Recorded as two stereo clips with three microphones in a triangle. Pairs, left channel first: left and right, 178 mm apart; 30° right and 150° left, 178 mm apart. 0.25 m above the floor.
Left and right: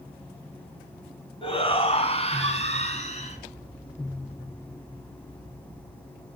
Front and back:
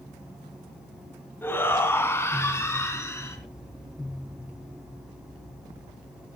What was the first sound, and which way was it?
A shout, 45° left.